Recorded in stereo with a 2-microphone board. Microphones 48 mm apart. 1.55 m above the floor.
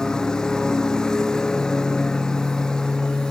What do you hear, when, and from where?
0.0 s a lawn mower: 15° left (ahead or behind)